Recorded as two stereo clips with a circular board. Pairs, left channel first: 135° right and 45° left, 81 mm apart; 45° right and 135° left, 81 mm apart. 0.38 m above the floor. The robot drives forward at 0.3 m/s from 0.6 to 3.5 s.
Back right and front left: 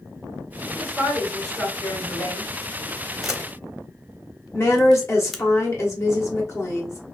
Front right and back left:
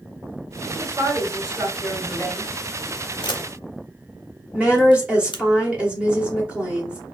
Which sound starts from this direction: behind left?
A woman speaking, at 0.8 s.